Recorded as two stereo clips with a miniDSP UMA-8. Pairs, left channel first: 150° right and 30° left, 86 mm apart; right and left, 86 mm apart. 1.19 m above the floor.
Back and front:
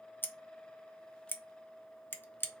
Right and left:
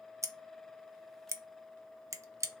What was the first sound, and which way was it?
Scissors, 145° left.